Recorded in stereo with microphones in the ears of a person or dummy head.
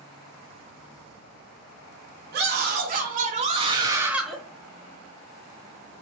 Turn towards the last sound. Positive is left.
turn(degrees=5)  # may be behind; listen again after turning